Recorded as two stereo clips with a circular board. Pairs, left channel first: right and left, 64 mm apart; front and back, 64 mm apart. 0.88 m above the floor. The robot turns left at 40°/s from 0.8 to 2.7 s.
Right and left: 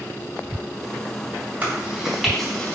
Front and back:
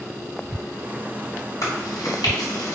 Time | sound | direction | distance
1.6 | chewing | 30° left | 4 m